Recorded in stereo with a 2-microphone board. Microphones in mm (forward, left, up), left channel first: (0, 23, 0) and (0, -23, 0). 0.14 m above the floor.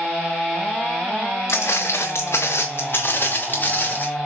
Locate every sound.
1.5 s footsteps: 80° left, 1.0 m; by 4.1 s 35° left (ahead or behind), 1.7 m